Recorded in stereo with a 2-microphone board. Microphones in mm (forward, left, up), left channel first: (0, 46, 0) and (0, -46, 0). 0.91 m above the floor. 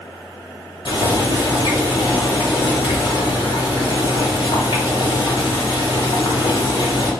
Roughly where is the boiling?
Left.